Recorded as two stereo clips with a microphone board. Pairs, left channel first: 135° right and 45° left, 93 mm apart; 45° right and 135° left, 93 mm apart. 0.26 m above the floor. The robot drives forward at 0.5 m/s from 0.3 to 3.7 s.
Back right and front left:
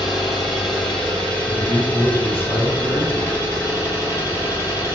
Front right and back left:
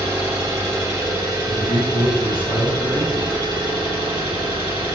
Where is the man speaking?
65° right, 1.5 m; by 3.3 s 130° right, 1.6 m.